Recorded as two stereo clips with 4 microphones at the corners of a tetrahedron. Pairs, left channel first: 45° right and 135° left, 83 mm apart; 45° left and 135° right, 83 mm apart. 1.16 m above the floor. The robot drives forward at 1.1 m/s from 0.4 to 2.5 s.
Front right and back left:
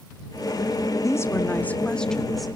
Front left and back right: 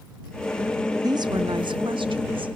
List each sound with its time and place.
1.0 s a woman speaking: 95° right, 1.8 m; by 2.5 s 135° right, 2.5 m